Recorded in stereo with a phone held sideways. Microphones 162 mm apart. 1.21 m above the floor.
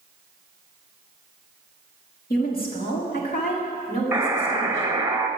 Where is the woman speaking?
70° left (ahead or behind), 1.9 m; by 4.9 s 55° left (ahead or behind), 3.5 m.